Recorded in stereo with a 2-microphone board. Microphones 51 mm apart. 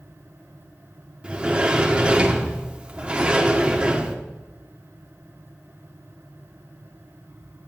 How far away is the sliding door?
About 1.0 m.